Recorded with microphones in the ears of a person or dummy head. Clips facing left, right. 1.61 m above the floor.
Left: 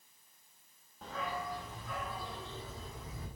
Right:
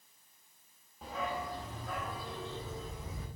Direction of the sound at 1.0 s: Centre (ahead or behind).